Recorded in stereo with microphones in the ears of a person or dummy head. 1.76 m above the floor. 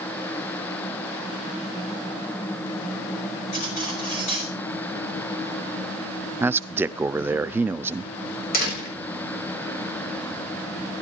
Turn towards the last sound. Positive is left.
turn(degrees=55)  # may be behind; listen again after turning